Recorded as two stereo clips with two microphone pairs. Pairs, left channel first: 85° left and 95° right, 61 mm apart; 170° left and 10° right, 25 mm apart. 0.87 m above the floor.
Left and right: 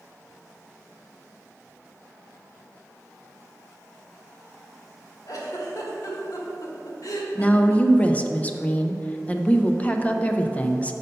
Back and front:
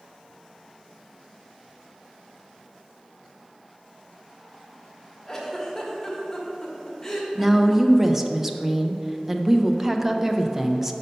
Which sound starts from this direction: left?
A giggle, at 5.3 s.